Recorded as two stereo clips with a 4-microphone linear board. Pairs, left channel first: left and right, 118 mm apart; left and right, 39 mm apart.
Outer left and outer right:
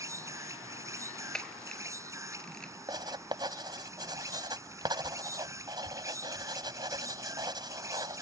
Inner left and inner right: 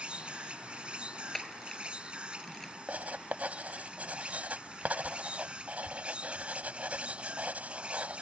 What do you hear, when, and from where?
0.0 s an insect: 25° right (ahead or behind)
1.3 s a camera shutter: 5° left (ahead or behind)
2.9 s writing: 35° right (ahead or behind)